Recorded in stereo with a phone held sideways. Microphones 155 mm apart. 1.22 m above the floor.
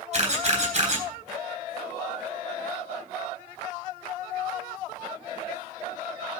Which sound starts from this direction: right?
A camera shutter, at 0.1 s.